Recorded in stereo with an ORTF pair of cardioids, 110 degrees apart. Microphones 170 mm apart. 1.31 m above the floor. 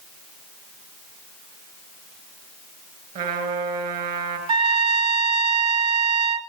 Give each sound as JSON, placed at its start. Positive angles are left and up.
{"t": 3.1, "sound": "a trumpet", "azimuth_deg": -60, "distance_m": 4.5}
{"t": 4.5, "sound": "a trumpet", "azimuth_deg": -30, "distance_m": 1.5}